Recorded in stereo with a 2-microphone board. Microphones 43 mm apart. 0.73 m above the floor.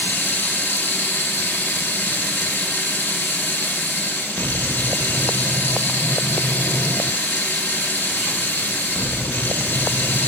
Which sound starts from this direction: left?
Running water, at 0.0 s.